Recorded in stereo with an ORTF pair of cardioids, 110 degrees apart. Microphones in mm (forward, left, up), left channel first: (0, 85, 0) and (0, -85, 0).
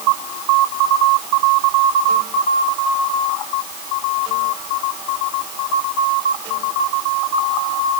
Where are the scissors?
No scissors in this recording.